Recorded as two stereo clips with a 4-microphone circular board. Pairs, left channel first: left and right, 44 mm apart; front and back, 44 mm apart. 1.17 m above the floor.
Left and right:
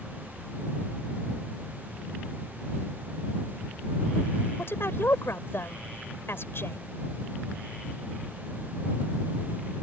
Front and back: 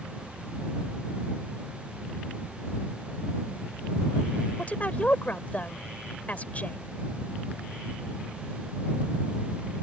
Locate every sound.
4.6 s a woman speaking: 60° left